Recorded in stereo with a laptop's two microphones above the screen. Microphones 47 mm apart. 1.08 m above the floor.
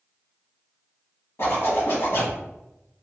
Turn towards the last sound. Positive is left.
turn(degrees=60)  # may be behind; listen again after turning